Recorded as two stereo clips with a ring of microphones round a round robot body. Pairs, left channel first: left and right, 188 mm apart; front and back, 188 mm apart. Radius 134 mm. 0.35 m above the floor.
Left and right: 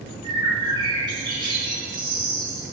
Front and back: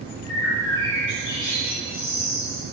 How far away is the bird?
About 3.5 m.